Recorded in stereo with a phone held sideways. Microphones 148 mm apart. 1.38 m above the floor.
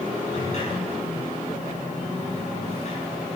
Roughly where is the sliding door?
Left.